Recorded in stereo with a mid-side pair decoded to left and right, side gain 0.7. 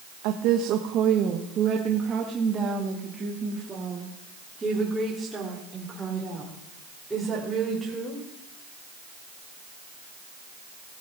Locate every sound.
0.2 s a woman speaking: 70° right, 1.2 m; by 8.2 s 10° right, 5 m